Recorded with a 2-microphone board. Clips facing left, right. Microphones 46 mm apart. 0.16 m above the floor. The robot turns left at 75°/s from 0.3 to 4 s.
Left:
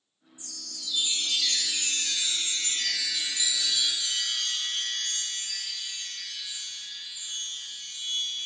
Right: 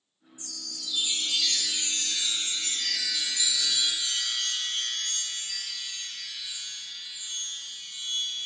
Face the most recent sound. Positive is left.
turn(degrees=-20)